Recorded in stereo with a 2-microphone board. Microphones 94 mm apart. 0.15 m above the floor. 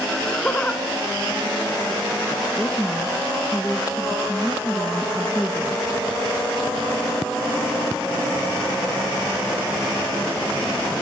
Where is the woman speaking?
5° left (ahead or behind), 1.5 m.